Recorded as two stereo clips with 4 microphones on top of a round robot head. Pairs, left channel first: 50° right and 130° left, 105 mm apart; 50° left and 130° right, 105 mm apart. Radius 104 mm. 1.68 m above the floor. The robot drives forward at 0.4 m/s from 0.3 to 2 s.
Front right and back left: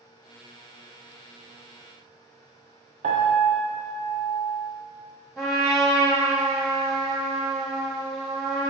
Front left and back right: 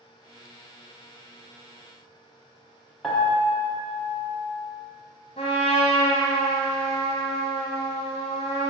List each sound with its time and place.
3.0 s a piano: 140° left, 1.1 m
5.4 s a trumpet: 40° left, 0.9 m